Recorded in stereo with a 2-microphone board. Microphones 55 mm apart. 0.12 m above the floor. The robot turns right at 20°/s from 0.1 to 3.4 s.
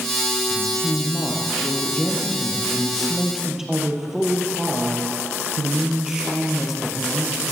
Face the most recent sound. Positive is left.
turn(degrees=-170)